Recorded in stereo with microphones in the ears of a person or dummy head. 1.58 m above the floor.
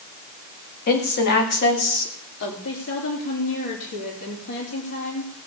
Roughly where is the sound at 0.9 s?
Left.